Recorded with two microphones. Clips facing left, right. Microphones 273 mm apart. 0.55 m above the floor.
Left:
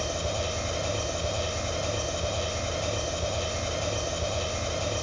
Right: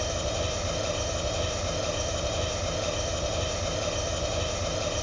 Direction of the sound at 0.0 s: 15° right (ahead or behind).